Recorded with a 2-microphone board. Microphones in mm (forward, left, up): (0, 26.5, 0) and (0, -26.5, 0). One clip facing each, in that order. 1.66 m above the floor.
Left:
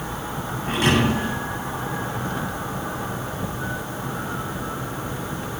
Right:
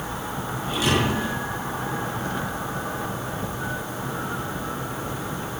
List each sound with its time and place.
0.7 s a thud: 55° left (ahead or behind), 8.5 m